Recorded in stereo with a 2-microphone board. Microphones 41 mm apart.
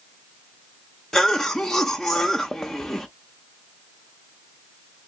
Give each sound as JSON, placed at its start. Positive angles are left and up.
{"t": 1.1, "sound": "a cough", "side_deg": 15, "distance_m": 0.5}